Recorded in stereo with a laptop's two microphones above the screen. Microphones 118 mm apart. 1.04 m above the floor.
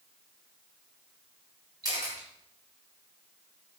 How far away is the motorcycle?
No motorcycle in this recording.